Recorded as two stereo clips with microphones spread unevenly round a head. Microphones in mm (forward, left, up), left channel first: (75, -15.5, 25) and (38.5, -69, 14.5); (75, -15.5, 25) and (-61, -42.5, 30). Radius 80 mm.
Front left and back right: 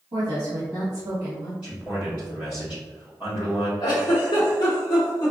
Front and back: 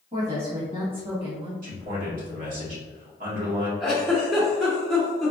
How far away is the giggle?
About 1.0 m.